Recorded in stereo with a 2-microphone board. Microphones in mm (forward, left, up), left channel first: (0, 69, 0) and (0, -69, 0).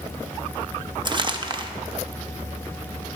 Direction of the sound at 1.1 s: 35° right (ahead or behind).